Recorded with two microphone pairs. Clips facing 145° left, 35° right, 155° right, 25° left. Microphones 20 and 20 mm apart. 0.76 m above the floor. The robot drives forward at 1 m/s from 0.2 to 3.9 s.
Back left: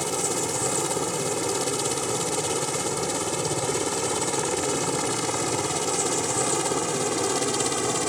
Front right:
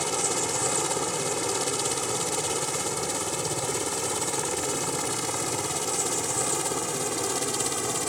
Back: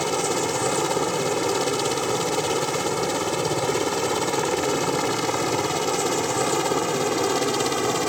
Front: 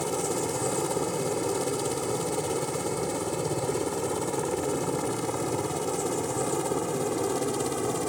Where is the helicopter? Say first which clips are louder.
Back left 1 dB, back 5 dB; 120° right; by 8.1 s 140° right.